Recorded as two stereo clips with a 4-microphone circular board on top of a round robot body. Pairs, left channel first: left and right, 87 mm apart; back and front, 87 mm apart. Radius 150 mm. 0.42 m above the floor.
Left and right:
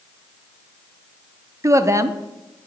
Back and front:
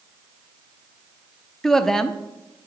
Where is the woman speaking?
100° right, 1.0 m.